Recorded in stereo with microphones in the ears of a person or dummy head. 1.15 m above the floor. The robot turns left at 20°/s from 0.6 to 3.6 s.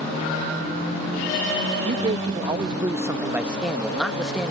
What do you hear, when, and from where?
1.8 s a man speaking: 140° right; by 4.5 s 175° right